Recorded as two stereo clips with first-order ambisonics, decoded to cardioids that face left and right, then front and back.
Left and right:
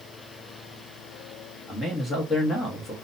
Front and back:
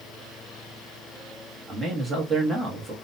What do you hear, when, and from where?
1.7 s a man speaking: 125° left, 0.9 m